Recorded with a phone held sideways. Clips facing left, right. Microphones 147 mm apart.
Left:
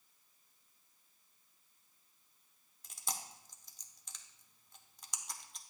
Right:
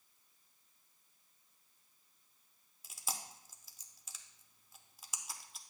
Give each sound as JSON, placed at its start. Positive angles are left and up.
{"t": 2.8, "sound": "chewing", "side_deg": -5, "distance_m": 0.6}